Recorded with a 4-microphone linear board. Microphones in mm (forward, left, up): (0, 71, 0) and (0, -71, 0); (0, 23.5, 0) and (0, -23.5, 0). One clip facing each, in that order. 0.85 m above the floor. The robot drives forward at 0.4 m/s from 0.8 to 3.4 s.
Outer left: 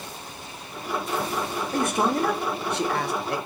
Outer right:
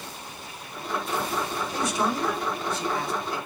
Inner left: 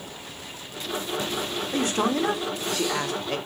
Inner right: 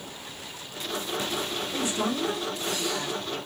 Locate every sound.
1.7 s a man speaking: 50° left (ahead or behind), 1.0 m; by 3.4 s 65° left (ahead or behind), 0.9 m